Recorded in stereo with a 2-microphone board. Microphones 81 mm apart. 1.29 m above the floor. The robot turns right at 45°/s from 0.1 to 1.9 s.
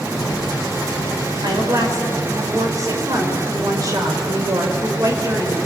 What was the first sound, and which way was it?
A woman speaking, 65° right (ahead or behind).